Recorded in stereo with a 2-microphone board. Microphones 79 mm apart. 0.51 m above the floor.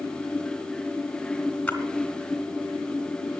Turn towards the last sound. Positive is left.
turn(degrees=15)  # may be behind; listen again after turning